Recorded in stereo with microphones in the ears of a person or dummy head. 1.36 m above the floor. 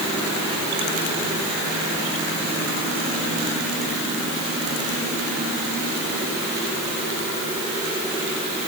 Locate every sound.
Only background noise.